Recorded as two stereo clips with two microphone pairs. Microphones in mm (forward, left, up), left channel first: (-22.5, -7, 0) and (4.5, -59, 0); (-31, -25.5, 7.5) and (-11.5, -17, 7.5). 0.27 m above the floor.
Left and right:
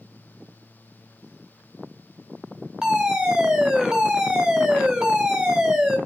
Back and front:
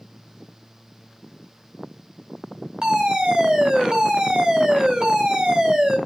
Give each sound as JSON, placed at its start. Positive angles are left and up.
{"t": 2.8, "sound": "a fire alarm", "azimuth_deg": 10, "distance_m": 2.5}